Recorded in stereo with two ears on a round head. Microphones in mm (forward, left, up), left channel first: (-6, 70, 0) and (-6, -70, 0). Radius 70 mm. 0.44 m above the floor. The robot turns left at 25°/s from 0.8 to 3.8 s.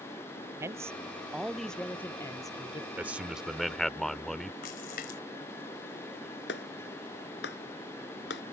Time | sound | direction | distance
0.6 | a man speaking | 160° right | ?
3.0 | a man speaking | 10° right (ahead or behind) | ?
4.6 | a splash | 60° left (ahead or behind) | ?
6.5 | a clap | 80° left | ?